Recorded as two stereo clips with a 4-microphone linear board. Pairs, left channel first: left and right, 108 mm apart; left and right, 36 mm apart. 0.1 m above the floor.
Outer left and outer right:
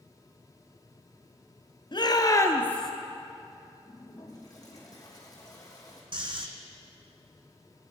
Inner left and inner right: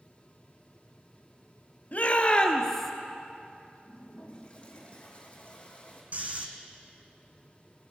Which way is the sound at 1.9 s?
45° left (ahead or behind).